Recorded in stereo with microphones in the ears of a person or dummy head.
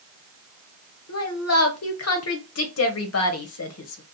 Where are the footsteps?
I don't hear footsteps.